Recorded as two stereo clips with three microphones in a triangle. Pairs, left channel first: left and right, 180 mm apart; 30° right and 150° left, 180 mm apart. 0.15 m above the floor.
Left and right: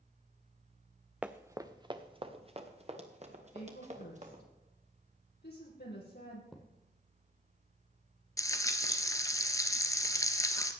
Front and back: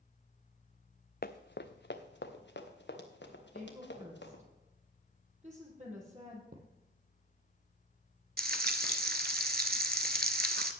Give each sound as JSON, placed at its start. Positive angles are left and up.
{"t": 1.2, "sound": "running footsteps", "azimuth_deg": -5, "distance_m": 0.7}
{"t": 3.5, "sound": "a woman speaking", "azimuth_deg": 105, "distance_m": 4.5}
{"t": 6.5, "sound": "a thud", "azimuth_deg": 175, "distance_m": 1.8}
{"t": 8.4, "sound": "frying", "azimuth_deg": 160, "distance_m": 0.9}